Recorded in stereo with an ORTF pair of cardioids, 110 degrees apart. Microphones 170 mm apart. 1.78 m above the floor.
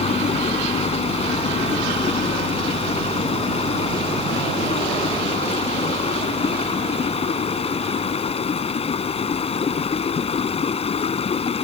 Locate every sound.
0.0 s running water: 35° left